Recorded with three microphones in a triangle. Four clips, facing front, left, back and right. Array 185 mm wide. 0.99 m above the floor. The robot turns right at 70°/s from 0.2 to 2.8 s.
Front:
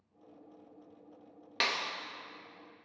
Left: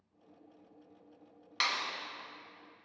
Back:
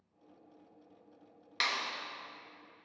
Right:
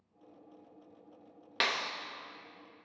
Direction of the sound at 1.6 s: 55° right.